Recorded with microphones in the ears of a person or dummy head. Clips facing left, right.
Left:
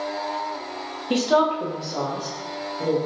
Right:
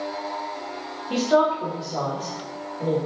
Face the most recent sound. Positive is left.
turn(degrees=25)  # may be behind; listen again after turning